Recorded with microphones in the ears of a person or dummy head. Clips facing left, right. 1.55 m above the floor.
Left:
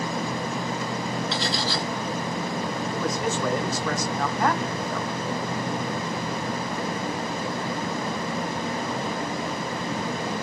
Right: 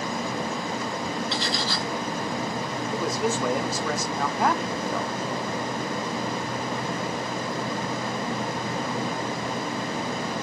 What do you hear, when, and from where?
1.3 s cutlery clinking: 40° left (ahead or behind), 1.6 m
2.9 s a man speaking: 10° right (ahead or behind), 0.5 m